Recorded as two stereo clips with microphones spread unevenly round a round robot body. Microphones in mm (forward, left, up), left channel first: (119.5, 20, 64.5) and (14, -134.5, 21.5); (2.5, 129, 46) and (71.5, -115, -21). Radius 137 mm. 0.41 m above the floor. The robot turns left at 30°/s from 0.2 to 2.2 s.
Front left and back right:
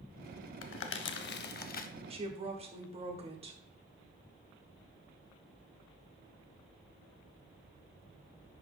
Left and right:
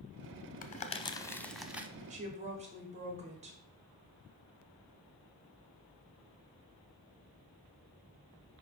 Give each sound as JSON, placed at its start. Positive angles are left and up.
{"t": 0.6, "sound": "crumpling", "azimuth_deg": 45, "distance_m": 0.7}
{"t": 2.1, "sound": "a woman speaking", "azimuth_deg": -105, "distance_m": 1.5}